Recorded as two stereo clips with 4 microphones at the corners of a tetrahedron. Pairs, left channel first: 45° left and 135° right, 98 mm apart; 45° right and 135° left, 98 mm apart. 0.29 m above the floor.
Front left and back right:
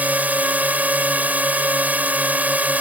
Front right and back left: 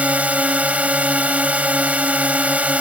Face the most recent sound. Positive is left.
turn(degrees=-175)